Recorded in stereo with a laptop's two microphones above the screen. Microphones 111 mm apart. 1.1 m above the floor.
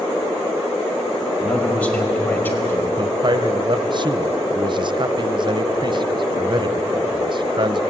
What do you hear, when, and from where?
1.4 s a man speaking: 10° left (ahead or behind), 5 m; by 2.9 s 20° left (ahead or behind), 4 m
3.0 s a man speaking: 45° right (ahead or behind), 0.7 m